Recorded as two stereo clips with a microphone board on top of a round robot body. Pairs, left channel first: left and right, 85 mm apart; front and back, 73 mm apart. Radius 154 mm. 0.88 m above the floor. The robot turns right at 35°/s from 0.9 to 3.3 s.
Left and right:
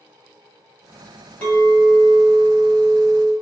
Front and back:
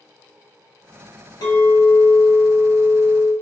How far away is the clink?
About 1.0 m.